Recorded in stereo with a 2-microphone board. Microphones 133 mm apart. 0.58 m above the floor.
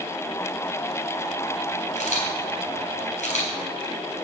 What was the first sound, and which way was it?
A camera shutter, 70° left (ahead or behind).